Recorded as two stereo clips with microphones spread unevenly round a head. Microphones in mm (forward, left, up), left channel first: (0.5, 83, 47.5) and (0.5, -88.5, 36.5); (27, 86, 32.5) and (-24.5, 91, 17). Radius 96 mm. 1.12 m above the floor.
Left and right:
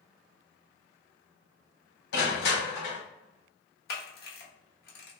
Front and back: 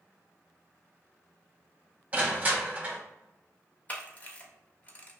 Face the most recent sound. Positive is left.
turn(degrees=55)